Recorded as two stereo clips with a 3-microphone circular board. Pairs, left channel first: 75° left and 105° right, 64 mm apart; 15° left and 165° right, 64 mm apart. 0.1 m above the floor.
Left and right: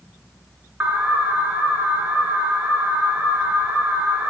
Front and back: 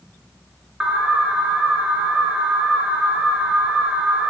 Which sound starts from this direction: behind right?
An alarm, at 0.8 s.